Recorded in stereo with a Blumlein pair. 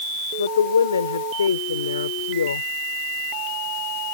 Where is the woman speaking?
70° left.